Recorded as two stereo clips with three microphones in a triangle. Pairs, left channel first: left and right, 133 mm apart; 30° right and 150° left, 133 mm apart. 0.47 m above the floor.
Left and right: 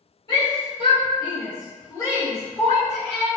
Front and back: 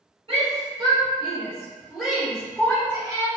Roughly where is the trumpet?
I don't hear a trumpet.